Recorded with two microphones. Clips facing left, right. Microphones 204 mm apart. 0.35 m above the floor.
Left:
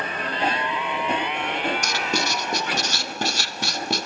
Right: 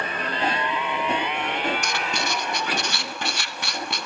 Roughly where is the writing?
Left.